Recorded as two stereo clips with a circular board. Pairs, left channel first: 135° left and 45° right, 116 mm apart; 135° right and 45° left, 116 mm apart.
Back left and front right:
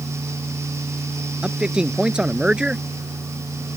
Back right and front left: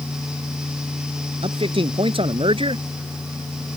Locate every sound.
1.4 s a man speaking: 35° left